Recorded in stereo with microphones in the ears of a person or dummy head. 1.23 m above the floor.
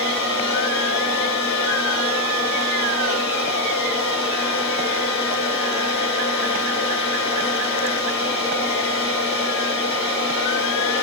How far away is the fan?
About 5 m.